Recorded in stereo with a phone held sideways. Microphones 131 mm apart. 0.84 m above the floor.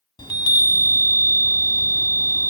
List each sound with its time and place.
0.2 s a chime: 40° left (ahead or behind), 1.1 m